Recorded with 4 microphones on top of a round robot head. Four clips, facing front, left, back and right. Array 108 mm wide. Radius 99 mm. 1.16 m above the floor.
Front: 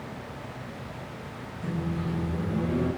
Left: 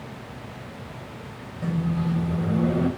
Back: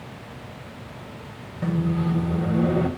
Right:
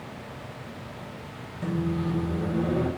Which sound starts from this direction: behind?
A microwave, at 1.6 s.